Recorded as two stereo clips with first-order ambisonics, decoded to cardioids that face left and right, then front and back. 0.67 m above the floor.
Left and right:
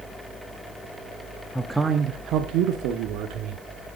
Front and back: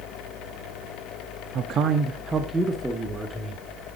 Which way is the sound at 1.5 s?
165° left.